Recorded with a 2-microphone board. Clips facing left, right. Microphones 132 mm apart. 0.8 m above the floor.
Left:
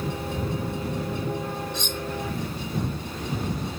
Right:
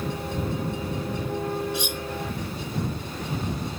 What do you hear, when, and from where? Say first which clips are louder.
1.7 s cutlery clinking: right 2 dB; 10° right (ahead or behind)